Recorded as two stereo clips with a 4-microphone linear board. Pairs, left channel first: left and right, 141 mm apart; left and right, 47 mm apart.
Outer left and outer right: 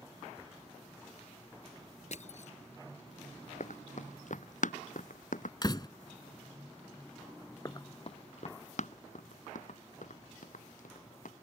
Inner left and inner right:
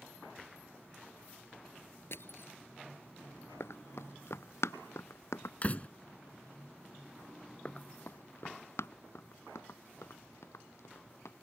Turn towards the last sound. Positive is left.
turn(degrees=80)